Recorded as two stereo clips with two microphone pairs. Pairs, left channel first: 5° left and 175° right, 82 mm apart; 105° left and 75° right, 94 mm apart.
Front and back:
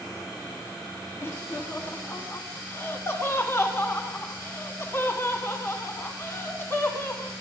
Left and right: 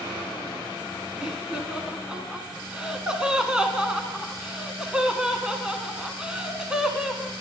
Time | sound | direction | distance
1.2 | laughter | straight ahead | 1.5 m